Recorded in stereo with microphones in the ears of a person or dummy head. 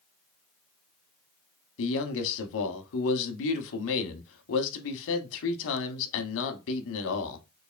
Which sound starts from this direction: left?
A man speaking, at 1.8 s.